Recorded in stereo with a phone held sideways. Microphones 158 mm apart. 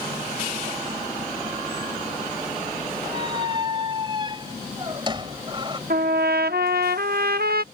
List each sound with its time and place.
3.1 s a squeak: 30° right (ahead or behind)
5.9 s a trumpet: 75° right (ahead or behind)